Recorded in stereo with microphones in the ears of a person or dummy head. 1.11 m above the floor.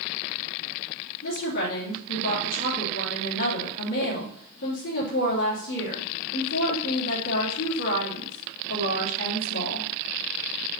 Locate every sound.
1.2 s a woman speaking: 60° left (ahead or behind), 2.5 m